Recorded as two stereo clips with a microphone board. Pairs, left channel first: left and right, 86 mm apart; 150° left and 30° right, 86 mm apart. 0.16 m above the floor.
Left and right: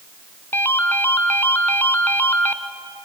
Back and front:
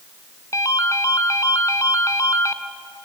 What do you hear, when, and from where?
0.5 s a ringtone: 140° left, 1.1 m